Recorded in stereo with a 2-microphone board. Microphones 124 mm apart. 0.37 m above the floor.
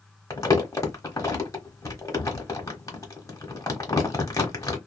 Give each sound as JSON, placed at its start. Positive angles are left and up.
{"t": 0.3, "sound": "crumpling", "side_deg": 25, "distance_m": 1.1}